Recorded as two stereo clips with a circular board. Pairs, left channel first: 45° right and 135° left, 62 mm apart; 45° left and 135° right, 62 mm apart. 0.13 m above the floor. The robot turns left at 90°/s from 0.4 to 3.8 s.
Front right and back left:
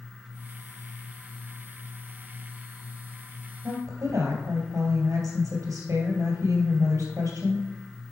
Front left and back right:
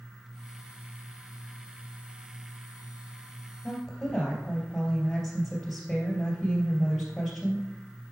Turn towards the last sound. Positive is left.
turn(degrees=130)